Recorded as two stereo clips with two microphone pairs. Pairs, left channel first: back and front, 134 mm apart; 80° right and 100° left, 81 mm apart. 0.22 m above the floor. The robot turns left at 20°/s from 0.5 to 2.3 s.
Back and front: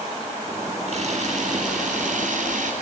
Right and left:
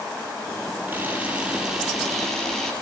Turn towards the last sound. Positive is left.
turn(degrees=5)